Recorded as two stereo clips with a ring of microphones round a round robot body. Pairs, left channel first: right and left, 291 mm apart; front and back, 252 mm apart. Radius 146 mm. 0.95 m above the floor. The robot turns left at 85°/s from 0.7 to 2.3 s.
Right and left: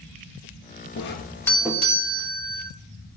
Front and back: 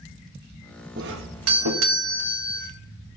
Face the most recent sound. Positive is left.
turn(degrees=120)